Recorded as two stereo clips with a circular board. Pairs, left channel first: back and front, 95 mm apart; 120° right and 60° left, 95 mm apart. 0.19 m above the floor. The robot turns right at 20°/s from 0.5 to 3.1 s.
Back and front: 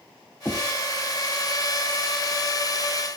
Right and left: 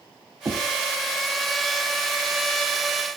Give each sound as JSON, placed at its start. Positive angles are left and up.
{"t": 0.5, "sound": "knocking", "azimuth_deg": 110, "distance_m": 4.0}